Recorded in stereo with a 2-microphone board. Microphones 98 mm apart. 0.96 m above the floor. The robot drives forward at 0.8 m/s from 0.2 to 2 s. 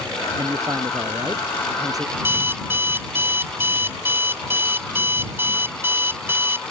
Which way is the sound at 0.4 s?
40° right (ahead or behind).